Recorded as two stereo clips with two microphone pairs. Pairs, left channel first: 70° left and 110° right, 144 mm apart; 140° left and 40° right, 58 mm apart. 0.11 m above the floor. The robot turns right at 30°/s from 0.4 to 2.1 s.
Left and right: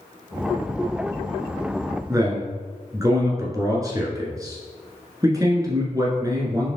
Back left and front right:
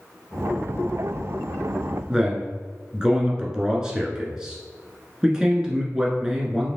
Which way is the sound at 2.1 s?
95° right.